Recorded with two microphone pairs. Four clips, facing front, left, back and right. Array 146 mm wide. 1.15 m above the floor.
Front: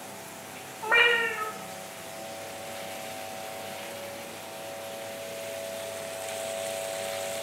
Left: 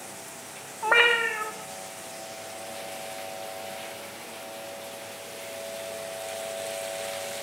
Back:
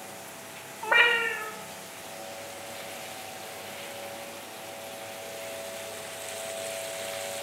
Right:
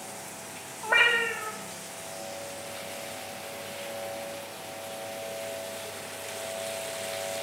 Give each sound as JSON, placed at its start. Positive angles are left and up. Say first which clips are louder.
{"t": 0.8, "sound": "a cat meowing", "louder": "left 3 dB, even", "azimuth_deg": 85, "distance_m": 1.7}